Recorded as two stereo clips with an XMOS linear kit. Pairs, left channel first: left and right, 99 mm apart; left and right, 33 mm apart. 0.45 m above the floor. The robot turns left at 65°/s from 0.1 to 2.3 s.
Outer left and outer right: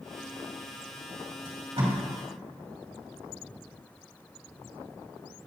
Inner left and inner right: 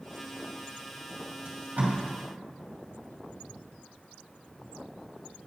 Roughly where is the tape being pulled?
Right.